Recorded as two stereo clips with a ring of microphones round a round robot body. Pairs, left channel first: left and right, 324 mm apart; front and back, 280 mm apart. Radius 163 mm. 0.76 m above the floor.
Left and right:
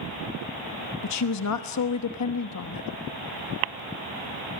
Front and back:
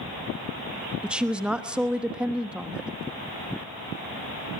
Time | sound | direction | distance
1.0 | a woman speaking | 95° left | 1.2 m